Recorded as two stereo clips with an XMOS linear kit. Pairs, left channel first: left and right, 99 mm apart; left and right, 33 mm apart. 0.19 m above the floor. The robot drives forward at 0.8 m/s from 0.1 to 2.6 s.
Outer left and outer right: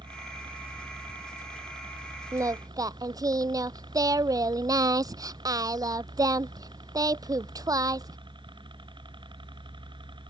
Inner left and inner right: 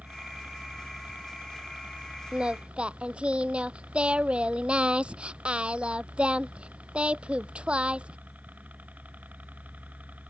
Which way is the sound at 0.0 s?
50° right (ahead or behind).